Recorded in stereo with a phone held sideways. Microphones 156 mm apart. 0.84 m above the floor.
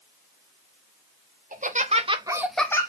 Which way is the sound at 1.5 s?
60° right (ahead or behind).